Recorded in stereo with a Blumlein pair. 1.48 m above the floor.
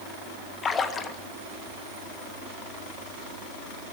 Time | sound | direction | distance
0.6 | a splash | 20° left | 1.6 m